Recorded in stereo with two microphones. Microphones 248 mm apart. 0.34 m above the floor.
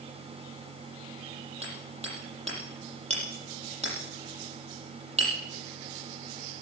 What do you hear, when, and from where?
1.6 s hammering: 25° right (ahead or behind), 7.5 m